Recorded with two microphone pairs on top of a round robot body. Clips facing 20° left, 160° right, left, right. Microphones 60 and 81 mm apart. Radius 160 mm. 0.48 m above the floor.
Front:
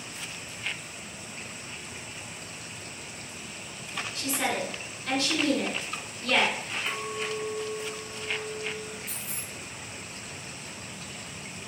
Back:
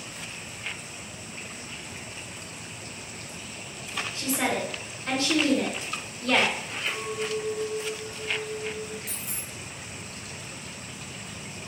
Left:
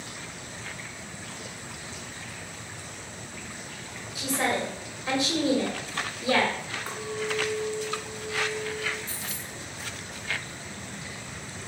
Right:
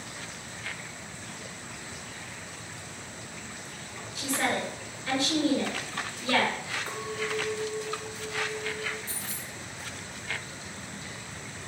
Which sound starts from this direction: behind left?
A woman speaking, at 4.2 s.